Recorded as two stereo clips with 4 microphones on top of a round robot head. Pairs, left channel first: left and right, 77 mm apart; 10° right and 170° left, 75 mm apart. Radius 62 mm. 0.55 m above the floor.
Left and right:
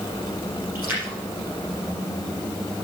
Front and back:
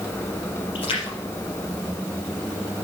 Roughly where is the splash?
Ahead.